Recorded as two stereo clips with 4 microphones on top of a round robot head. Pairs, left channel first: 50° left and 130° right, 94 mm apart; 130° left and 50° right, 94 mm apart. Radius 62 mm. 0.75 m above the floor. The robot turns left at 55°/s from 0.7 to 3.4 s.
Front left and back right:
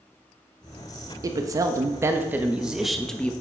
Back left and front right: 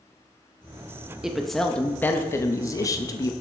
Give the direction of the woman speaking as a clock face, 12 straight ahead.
4 o'clock.